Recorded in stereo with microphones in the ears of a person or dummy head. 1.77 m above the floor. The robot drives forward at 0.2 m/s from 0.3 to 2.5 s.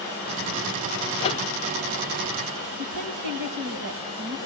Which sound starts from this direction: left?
A microwave, at 1.2 s.